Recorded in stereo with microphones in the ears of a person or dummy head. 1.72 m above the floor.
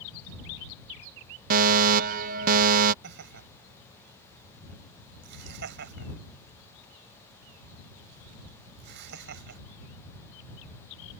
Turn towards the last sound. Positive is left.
turn(degrees=-60)  # may be behind; listen again after turning